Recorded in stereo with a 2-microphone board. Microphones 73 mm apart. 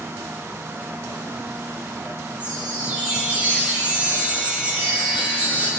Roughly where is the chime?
Right.